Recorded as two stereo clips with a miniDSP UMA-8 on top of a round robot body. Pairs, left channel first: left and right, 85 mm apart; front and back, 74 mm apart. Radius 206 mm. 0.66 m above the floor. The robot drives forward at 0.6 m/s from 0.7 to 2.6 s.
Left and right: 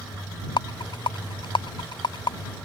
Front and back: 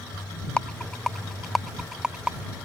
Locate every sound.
0.6 s a rattle: 75° left; by 2.4 s 105° left